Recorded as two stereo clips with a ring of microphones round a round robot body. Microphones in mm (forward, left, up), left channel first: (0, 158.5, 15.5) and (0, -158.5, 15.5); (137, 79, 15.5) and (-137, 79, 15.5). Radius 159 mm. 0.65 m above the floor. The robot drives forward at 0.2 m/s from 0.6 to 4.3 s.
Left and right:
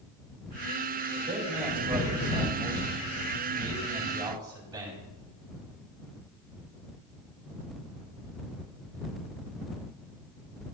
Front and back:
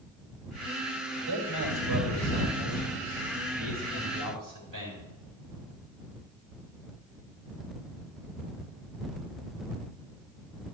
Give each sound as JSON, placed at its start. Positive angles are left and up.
{"t": 1.1, "sound": "a man speaking", "azimuth_deg": -165, "distance_m": 4.0}